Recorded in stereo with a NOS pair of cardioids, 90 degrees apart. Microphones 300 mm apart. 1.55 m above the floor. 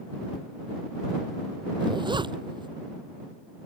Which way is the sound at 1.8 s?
15° right.